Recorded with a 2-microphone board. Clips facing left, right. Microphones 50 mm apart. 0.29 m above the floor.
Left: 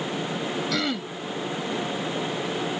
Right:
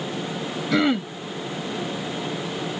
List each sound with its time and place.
0.7 s throat clearing: 25° right (ahead or behind)